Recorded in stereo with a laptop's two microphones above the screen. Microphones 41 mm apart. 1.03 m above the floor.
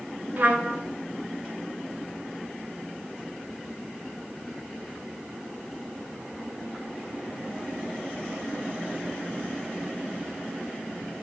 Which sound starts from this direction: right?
A trumpet, at 0.4 s.